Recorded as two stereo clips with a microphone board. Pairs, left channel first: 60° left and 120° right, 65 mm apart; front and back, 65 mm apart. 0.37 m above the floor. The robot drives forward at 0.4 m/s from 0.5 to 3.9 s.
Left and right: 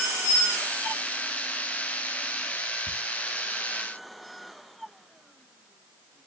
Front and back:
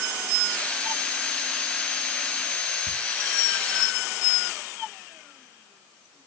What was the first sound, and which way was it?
Ticking, 25° left.